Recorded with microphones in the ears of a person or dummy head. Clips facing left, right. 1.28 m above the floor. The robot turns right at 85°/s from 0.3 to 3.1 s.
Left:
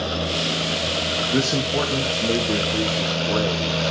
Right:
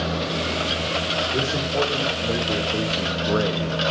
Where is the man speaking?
65° left, 1.9 m; by 3.8 s 145° right, 1.9 m.